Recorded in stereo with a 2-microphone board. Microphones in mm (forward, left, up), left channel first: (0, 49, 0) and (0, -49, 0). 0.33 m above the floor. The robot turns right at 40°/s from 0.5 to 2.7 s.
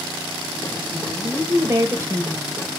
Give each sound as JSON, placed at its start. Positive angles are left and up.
{"t": 0.9, "sound": "a woman speaking", "azimuth_deg": -110, "distance_m": 0.9}